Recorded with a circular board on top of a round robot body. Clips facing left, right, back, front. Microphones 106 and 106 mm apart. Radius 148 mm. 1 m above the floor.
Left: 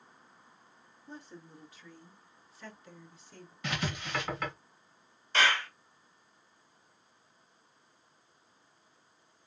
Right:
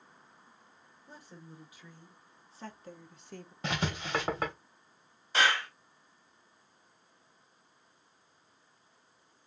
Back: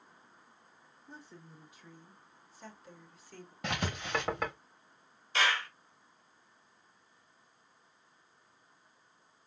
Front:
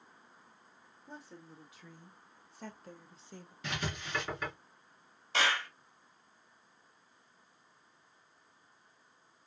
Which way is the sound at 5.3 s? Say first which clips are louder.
Even, back 1 dB; 10° right.